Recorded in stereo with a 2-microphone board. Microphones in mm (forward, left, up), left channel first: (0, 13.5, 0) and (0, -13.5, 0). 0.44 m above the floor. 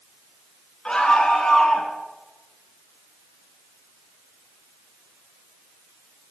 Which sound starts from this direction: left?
A scream, at 0.8 s.